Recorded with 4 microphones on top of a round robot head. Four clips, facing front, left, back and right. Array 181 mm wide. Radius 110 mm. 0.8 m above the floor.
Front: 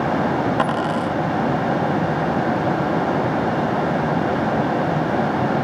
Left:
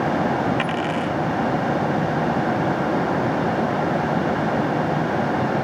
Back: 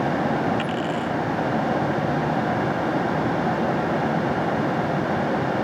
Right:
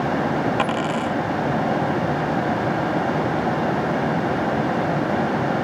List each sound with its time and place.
0.6 s a dropped coin: 30° right